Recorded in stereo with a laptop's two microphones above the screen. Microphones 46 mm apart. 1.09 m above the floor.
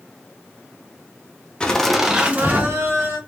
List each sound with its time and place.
1.6 s laughter: 20° left (ahead or behind), 0.5 m; by 3.2 s 55° right (ahead or behind), 0.9 m